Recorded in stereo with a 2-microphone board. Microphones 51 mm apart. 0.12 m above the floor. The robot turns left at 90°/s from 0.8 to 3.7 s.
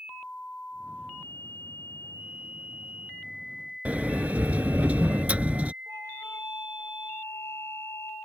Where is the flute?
60° left (ahead or behind).